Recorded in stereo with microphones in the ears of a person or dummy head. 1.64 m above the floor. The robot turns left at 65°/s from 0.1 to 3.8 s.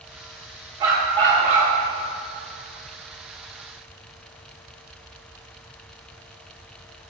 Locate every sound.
0.8 s a dog barking: 20° right (ahead or behind), 1.3 m; by 1.7 s 25° right (ahead or behind), 1.3 m